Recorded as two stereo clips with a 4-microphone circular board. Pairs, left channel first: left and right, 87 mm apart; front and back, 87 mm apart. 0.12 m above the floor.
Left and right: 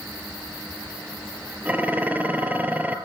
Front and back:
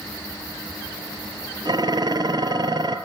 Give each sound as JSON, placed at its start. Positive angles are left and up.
{"t": 1.6, "sound": "dishes clattering", "azimuth_deg": -160, "distance_m": 2.0}